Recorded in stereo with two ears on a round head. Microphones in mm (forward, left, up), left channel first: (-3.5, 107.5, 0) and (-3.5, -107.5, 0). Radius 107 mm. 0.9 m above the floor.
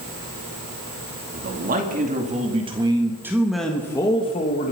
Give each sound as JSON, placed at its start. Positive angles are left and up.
{"t": 1.3, "sound": "a man speaking", "side_deg": -40, "distance_m": 2.5}